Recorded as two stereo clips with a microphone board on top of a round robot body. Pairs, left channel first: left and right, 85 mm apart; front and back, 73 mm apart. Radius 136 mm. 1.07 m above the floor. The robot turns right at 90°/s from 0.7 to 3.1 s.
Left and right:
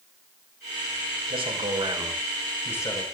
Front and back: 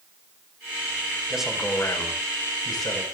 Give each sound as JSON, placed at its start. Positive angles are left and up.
{"t": 1.3, "sound": "a man speaking", "azimuth_deg": -105, "distance_m": 6.0}